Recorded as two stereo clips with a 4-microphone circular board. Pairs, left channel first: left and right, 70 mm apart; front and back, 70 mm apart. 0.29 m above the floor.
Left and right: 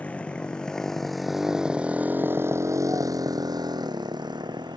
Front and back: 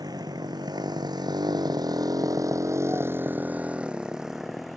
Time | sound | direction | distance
0.0 | a motorcycle | 160° left | ?